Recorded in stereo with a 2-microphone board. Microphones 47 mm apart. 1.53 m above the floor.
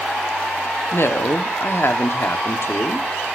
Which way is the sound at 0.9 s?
60° left (ahead or behind).